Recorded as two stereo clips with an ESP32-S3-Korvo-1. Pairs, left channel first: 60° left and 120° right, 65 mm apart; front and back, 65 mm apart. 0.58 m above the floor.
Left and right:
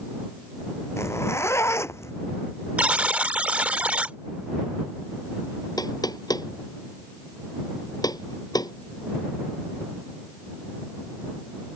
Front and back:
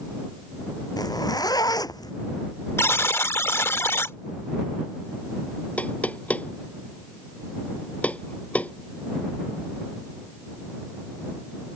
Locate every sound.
1.0 s a zipper: 15° left
2.8 s a buzzer: 50° right
5.8 s knocking: 70° left